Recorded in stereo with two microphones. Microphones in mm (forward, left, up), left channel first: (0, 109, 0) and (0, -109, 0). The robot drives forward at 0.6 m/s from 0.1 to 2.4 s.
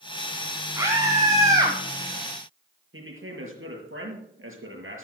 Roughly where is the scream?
Centre.